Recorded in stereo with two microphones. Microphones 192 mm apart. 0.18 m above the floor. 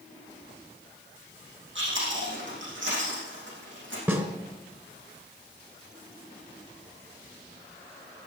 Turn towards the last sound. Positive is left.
turn(degrees=-15)  # may be behind; listen again after turning